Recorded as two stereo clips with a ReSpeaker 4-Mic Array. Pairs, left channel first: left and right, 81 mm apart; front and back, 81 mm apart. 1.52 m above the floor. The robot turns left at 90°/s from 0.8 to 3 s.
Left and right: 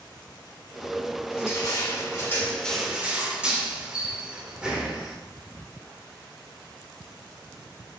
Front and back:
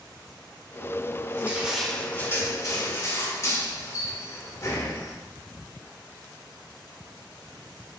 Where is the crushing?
135° left, 1.5 m; by 5.2 s 15° right, 1.5 m.